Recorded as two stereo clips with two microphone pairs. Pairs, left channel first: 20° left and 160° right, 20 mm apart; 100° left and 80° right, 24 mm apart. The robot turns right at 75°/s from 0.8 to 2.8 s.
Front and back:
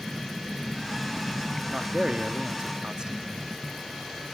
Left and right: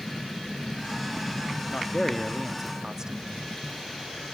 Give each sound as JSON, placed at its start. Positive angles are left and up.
{"t": 1.7, "sound": "a man speaking", "azimuth_deg": 140, "distance_m": 1.1}